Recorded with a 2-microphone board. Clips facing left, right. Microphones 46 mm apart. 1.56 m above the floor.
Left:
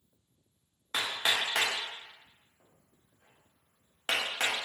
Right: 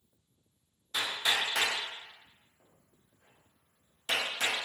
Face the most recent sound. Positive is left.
turn(degrees=45)  # may be behind; listen again after turning